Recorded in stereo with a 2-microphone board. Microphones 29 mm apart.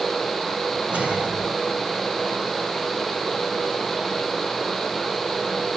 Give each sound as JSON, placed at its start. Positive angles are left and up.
{"t": 0.9, "sound": "a whoosh", "side_deg": -40, "distance_m": 3.0}